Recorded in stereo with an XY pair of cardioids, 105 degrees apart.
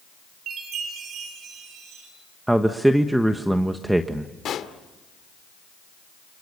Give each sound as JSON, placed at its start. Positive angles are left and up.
{"t": 0.5, "sound": "a chime", "azimuth_deg": -70, "distance_m": 8.5}
{"t": 2.5, "sound": "a man speaking", "azimuth_deg": -10, "distance_m": 1.3}
{"t": 4.5, "sound": "a pop", "azimuth_deg": 60, "distance_m": 2.0}